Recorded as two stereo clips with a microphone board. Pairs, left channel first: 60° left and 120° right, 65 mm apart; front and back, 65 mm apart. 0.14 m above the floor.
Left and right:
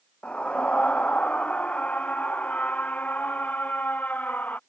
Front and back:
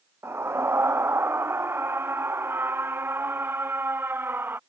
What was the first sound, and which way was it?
A scream, 135° left.